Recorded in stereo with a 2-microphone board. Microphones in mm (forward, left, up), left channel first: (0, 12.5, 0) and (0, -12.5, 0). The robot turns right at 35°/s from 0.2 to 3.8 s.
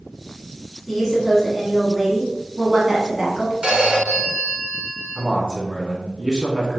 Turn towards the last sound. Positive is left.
turn(degrees=-20)  # may be behind; listen again after turning